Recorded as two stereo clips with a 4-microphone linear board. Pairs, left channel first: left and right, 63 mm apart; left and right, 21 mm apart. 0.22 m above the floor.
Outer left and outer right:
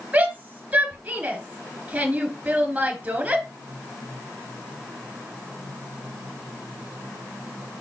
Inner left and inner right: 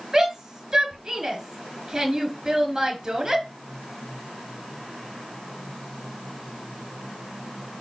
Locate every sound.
0.1 s a shout: 20° right (ahead or behind), 3.5 m